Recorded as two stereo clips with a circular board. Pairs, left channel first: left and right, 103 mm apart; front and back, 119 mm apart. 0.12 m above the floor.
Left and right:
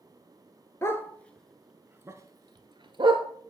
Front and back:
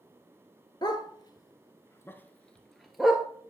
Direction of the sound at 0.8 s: 35° left.